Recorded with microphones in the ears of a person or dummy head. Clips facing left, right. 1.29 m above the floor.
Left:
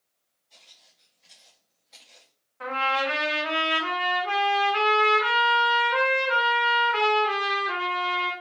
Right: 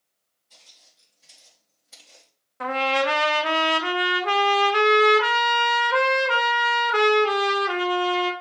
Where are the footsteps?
40° right (ahead or behind), 1.9 m; by 2.3 s 45° right (ahead or behind), 3 m.